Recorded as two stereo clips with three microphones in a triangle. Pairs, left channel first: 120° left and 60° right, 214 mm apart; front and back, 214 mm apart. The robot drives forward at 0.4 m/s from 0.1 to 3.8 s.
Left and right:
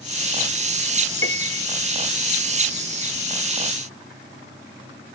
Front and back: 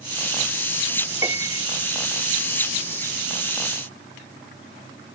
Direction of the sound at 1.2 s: 105° left.